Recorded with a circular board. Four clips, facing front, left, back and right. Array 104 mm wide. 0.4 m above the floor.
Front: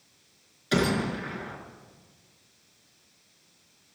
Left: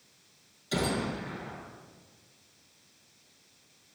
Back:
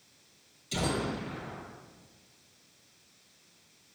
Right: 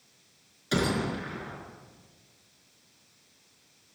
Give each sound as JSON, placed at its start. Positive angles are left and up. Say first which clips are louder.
{"t": 0.7, "sound": "a gunshot", "louder": "right 3 dB, front 6 dB", "azimuth_deg": -30, "distance_m": 6.5}